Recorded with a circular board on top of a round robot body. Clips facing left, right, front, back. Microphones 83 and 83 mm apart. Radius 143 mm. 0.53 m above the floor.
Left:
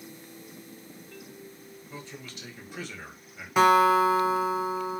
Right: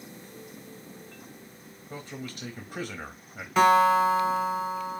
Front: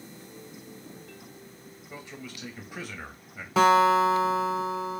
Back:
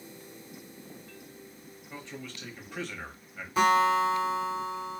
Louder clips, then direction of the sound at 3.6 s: Even, front 4 dB; 10° left.